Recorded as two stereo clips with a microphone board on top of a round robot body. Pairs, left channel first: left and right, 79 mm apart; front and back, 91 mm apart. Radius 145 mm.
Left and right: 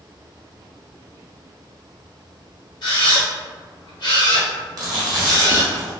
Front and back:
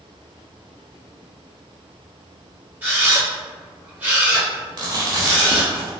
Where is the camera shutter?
110° left, 1.5 m.